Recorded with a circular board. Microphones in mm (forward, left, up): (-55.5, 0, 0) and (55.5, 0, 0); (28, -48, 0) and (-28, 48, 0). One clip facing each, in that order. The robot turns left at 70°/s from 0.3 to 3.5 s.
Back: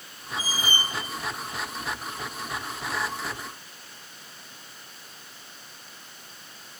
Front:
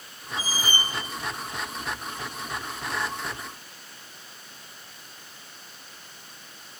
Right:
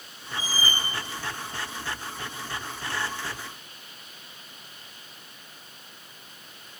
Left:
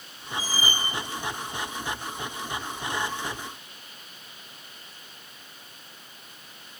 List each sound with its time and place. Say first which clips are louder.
0.4 s a squeak: even, left 1 dB; 55° right, 0.6 m; by 0.8 s 90° right, 0.6 m